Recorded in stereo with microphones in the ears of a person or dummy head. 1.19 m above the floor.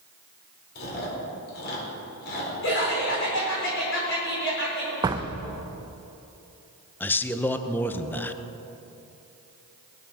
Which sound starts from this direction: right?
A door slam, at 5.0 s.